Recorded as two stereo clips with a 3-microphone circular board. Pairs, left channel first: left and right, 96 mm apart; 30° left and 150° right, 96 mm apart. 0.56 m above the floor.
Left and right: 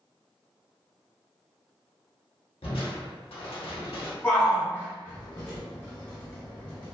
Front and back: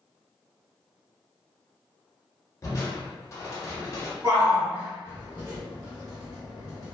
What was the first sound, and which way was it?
Crushing, 85° left.